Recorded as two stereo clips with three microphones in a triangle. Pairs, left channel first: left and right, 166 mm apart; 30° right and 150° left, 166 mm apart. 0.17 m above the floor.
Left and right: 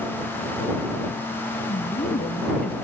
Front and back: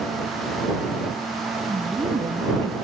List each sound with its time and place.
1.7 s a woman speaking: 90° left; by 2.8 s 95° left